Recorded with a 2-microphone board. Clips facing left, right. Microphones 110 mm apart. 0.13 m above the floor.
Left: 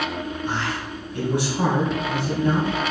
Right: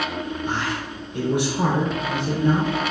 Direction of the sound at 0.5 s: 15° right (ahead or behind).